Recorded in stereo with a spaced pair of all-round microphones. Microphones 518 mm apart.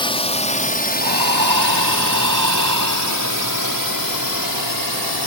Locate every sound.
0.0 s a drone: 10° left (ahead or behind); by 5.3 s 45° left (ahead or behind)
1.0 s breathing: 35° right (ahead or behind)